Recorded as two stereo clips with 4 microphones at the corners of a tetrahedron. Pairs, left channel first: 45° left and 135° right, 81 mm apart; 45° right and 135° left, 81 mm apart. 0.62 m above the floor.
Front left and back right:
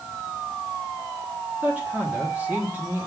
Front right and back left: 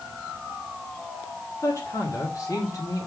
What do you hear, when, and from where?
1.6 s a man speaking: 70° right, 1.6 m